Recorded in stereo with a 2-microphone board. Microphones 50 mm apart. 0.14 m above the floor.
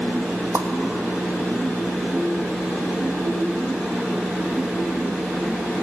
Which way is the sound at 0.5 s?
55° right (ahead or behind).